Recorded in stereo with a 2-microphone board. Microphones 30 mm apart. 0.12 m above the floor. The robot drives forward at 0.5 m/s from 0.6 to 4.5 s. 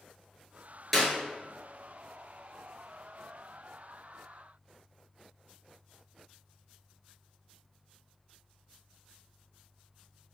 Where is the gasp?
No gasp in this recording.